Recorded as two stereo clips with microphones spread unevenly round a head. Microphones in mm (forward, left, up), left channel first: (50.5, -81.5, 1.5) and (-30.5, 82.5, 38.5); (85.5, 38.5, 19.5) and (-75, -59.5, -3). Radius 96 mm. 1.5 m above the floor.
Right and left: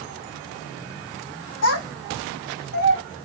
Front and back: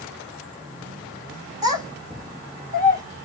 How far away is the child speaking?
About 3 m.